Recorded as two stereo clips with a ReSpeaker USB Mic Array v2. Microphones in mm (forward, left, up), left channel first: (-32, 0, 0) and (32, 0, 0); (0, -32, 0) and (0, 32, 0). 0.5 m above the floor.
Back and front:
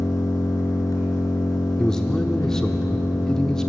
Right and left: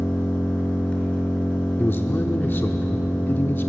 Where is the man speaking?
110° right, 0.8 m.